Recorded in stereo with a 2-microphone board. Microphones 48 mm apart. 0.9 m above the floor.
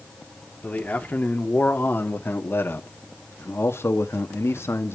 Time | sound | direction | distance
0.6 | a man speaking | 30° left (ahead or behind) | 3 m